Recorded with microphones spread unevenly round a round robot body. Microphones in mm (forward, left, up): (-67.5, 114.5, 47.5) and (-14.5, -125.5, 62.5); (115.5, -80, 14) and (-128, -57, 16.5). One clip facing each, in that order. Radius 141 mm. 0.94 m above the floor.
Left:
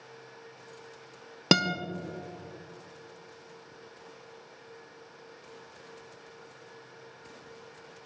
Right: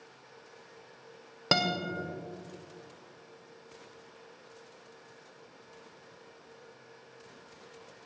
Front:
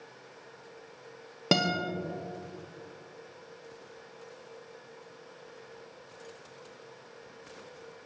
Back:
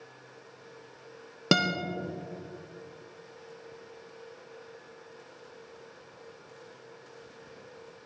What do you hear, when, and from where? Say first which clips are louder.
1.5 s a guitar: left 5 dB, back 1 dB; 100° left, 0.7 m